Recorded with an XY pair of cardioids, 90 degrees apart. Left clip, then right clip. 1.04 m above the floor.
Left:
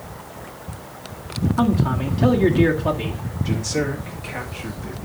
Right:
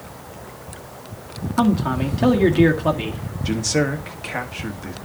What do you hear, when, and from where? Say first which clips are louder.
1.6 s a man speaking: right 3 dB; 35° right, 1.5 m
3.5 s a man speaking: right 3 dB; 45° right, 1.5 m